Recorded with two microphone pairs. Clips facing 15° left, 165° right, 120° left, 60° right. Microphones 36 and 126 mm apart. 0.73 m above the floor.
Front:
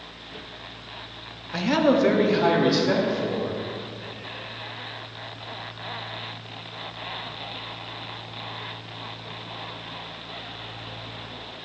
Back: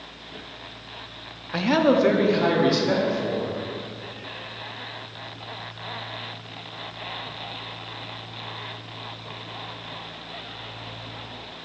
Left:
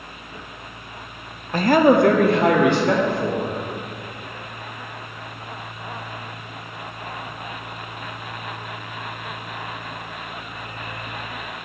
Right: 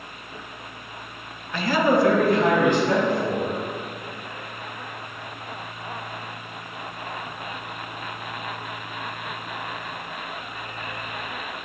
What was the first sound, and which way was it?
A man speaking, 135° left.